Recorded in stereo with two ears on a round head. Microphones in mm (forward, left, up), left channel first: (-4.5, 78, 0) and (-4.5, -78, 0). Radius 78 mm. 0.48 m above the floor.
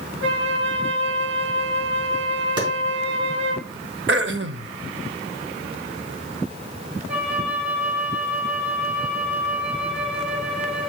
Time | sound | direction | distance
0.2 | a flute | 70° right (ahead or behind) | 1.4 m
2.6 | a clap | 30° right (ahead or behind) | 4 m
4.1 | throat clearing | 65° right (ahead or behind) | 0.6 m
7.1 | a flute | 10° right (ahead or behind) | 1.7 m